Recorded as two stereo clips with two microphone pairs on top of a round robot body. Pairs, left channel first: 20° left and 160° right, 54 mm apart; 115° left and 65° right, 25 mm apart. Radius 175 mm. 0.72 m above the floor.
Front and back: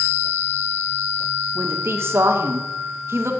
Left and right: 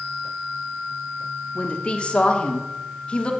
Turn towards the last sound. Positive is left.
turn(degrees=165)